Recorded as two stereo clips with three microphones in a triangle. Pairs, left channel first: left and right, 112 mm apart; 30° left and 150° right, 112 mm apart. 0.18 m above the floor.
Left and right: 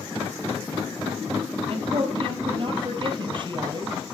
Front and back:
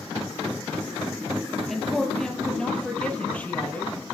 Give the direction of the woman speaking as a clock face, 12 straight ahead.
2 o'clock.